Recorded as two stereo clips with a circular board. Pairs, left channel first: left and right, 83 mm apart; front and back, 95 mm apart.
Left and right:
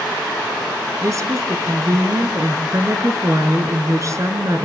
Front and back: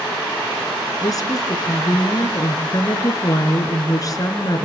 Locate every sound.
1.0 s a woman speaking: 45° right, 3.5 m